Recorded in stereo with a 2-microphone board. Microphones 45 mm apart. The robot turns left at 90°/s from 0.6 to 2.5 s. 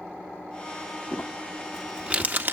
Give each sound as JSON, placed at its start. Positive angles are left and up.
{"t": 1.1, "sound": "crumpling", "side_deg": 45, "distance_m": 1.2}